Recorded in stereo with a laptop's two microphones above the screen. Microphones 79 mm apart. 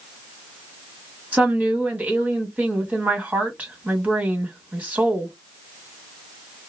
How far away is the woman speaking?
About 1.5 m.